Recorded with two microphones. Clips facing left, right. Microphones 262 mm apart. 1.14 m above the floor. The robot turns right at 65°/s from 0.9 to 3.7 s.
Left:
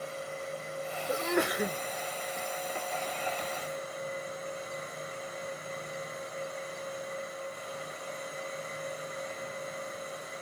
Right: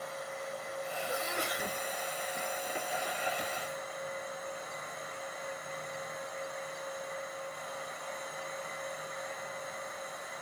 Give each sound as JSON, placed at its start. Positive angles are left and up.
{"t": 1.1, "sound": "a sneeze", "azimuth_deg": 70, "distance_m": 0.6}